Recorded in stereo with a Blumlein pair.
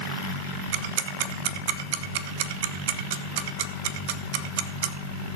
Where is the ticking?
50° right, 1.1 m.